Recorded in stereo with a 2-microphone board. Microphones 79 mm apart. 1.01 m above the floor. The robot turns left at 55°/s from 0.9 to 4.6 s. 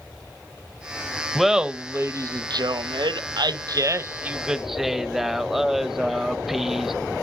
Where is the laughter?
Straight ahead, 0.6 m; by 6.9 s 175° right, 0.6 m.